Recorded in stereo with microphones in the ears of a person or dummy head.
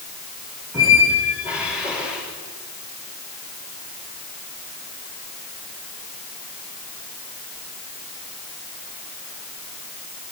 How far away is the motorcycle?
I don't hear a motorcycle.